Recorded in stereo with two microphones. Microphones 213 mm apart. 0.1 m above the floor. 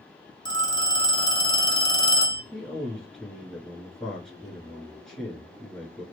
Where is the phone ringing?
20° left (ahead or behind), 0.8 m.